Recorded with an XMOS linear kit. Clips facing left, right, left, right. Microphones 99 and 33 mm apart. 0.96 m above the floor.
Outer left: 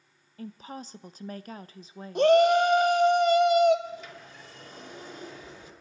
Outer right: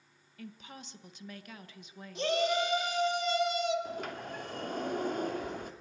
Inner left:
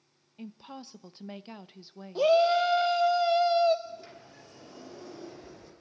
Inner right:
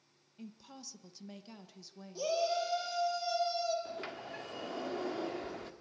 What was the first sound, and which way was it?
A woman speaking, 35° left (ahead or behind).